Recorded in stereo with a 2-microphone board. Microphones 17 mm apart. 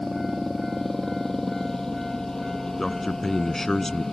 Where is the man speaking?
25° left (ahead or behind).